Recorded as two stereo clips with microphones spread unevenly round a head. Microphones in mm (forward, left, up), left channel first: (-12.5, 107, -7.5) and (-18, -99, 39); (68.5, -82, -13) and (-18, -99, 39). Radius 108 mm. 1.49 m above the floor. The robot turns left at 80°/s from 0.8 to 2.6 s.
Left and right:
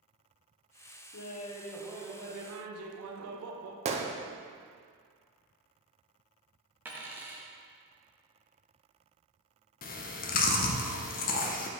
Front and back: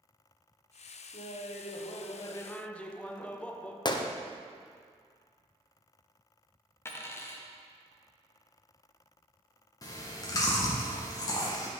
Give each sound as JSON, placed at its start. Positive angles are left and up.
{"t": 1.1, "sound": "laughter", "azimuth_deg": 50, "distance_m": 0.8}
{"t": 3.9, "sound": "a gunshot", "azimuth_deg": -30, "distance_m": 0.6}
{"t": 6.8, "sound": "a dropped coin", "azimuth_deg": -95, "distance_m": 0.7}
{"t": 9.8, "sound": "chewing", "azimuth_deg": 100, "distance_m": 0.5}